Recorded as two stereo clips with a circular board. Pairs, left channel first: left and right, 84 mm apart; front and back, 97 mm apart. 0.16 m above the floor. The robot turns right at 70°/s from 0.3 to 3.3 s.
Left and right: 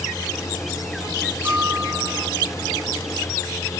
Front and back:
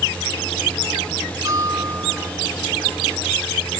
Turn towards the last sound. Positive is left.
turn(degrees=-15)